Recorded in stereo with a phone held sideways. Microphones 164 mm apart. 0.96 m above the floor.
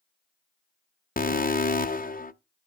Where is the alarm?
55° left (ahead or behind), 0.6 m.